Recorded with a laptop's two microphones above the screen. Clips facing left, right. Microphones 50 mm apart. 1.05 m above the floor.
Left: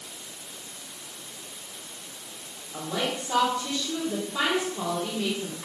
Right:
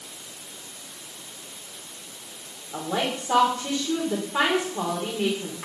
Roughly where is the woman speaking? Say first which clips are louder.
Right 3 dB; right.